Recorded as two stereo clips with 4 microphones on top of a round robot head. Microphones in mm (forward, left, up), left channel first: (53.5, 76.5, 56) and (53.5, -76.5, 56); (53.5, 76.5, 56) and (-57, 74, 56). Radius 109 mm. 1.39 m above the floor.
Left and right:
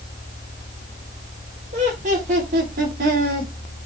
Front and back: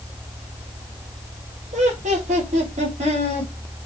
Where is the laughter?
145° right, 4 m; by 3.5 s 130° right, 4 m.